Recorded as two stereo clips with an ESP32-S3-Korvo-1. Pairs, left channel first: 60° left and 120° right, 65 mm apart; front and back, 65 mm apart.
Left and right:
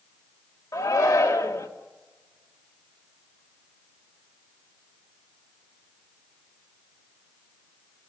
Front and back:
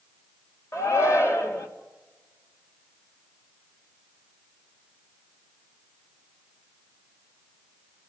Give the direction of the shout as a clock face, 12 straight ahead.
11 o'clock.